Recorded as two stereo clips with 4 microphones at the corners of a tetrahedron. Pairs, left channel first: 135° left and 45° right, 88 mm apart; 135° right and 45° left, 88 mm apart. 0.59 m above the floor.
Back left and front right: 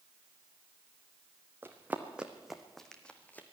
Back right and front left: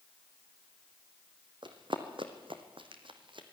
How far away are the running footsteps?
About 1.9 m.